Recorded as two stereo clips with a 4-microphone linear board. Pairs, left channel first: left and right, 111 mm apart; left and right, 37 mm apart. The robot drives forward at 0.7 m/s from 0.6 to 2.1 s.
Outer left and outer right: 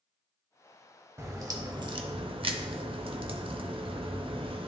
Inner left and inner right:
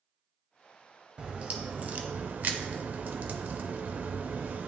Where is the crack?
25° right (ahead or behind), 1.0 m; by 4.7 s 50° right (ahead or behind), 0.6 m.